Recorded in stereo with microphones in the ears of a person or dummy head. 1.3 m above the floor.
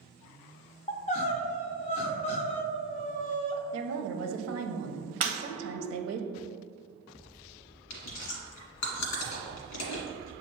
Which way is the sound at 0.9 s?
35° left (ahead or behind).